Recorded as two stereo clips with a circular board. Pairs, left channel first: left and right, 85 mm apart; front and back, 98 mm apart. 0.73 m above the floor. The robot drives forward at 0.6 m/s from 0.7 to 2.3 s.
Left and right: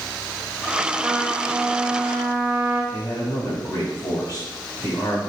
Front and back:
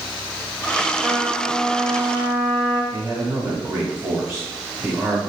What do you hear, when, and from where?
1.0 s a trumpet: 125° right, 0.7 m; by 2.8 s 165° right, 1.1 m
2.9 s a man speaking: 125° left, 1.5 m